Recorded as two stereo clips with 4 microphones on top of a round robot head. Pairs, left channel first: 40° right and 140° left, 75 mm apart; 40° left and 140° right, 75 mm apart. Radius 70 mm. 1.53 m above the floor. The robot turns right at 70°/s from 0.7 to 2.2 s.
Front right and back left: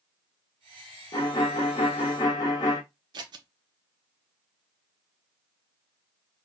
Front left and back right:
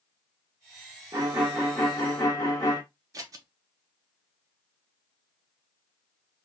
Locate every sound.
1.1 s a violin: 85° right, 1.0 m; by 2.8 s 10° right, 1.0 m
3.1 s scissors: 175° left, 0.6 m